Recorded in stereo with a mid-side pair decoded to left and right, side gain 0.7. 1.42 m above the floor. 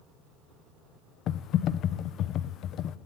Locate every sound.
1.3 s typing on a keyboard: 50° left, 1.0 m